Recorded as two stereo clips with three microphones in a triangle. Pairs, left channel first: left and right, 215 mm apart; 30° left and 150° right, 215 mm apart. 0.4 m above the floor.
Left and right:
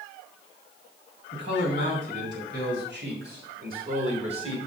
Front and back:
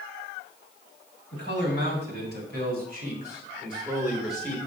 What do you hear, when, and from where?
1.3 s a man speaking: 120° right, 3.5 m; by 4.6 s 40° right, 1.4 m